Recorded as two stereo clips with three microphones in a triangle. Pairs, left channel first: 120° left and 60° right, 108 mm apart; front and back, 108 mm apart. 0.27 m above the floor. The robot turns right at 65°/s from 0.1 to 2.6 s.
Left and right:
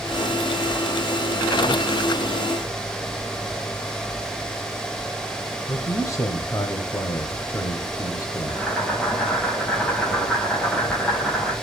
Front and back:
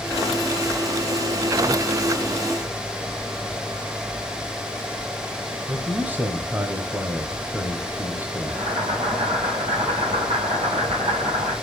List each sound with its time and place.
5.7 s a man speaking: 125° left, 1.6 m
8.5 s boiling: 160° right, 6.5 m